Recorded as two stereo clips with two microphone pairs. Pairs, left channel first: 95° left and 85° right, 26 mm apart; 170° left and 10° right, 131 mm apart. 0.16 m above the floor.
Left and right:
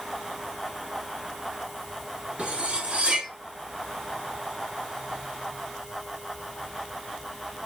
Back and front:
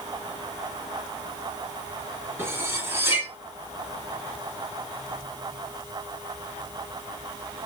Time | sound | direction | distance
2.4 | cutlery clinking | 75° right | 1.2 m